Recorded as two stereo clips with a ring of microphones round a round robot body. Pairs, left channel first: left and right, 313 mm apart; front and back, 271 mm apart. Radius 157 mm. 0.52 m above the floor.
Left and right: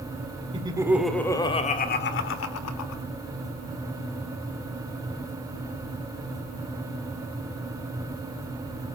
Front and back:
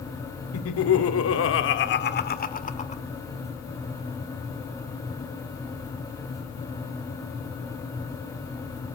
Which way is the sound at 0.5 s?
20° right.